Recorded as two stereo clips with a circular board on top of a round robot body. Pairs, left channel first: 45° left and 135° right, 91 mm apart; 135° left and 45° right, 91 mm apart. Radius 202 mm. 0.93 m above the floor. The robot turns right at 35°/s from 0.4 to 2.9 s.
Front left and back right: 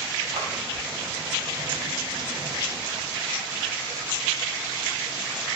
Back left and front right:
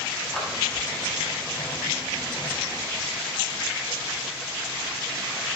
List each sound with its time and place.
0.3 s a clap: 140° right, 5.5 m; by 0.5 s 135° right, 5.5 m